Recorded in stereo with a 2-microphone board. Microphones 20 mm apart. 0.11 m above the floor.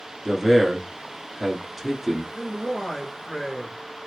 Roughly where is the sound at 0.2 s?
Right.